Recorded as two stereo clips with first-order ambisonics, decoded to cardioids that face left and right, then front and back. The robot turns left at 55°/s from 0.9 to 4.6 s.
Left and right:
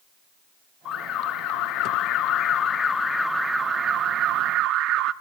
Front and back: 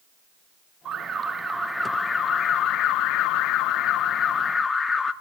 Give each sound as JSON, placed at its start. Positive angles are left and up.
{"t": 0.8, "sound": "an alarm", "azimuth_deg": 130, "distance_m": 1.2}